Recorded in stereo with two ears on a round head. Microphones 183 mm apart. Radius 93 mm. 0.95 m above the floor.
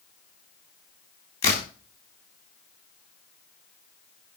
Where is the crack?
30° left (ahead or behind), 3 m.